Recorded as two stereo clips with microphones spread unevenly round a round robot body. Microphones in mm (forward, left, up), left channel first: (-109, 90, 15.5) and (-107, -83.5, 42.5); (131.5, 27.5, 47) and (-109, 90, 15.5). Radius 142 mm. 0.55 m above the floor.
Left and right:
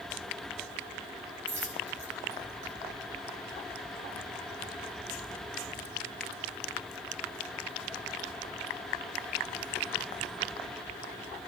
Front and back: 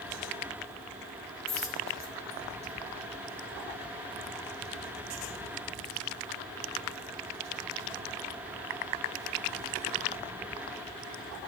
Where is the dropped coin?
85° right, 3.5 m.